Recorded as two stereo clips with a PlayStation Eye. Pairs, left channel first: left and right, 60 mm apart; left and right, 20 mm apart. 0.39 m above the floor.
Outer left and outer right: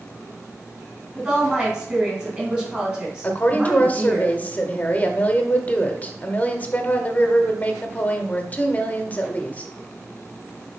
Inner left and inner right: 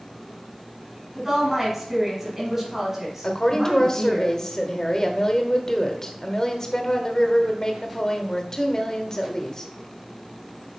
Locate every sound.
1.1 s a woman speaking: 20° right (ahead or behind), 4 m
3.2 s a woman speaking: 30° left (ahead or behind), 0.9 m